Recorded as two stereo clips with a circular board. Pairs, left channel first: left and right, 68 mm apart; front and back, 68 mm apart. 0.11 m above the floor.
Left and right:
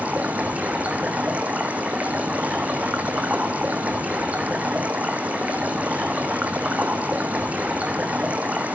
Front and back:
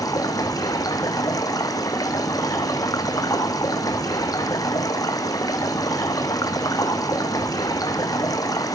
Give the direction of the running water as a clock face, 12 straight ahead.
1 o'clock.